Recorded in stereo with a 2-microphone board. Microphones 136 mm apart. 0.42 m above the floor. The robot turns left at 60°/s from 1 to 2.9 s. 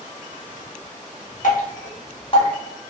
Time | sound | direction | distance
1.4 | dripping | 65° left (ahead or behind) | 0.8 m